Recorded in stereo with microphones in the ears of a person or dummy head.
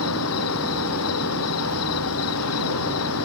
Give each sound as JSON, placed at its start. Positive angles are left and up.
{"t": 0.0, "sound": "an insect", "side_deg": 80}